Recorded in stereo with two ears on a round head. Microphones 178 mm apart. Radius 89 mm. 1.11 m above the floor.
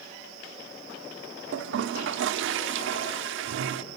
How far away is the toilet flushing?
About 1.2 m.